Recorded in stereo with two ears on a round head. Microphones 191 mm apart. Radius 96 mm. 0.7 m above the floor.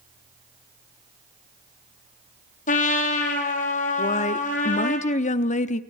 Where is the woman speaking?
35° left (ahead or behind), 1.0 m.